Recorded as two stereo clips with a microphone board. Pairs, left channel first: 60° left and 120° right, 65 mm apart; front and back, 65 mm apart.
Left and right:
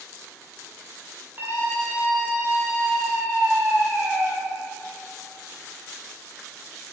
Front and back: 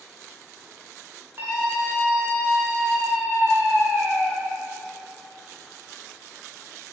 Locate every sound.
1.4 s a scream: 155° right, 1.7 m